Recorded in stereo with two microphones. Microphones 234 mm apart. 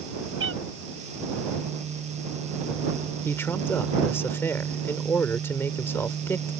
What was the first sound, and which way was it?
A cat meowing, 60° right (ahead or behind).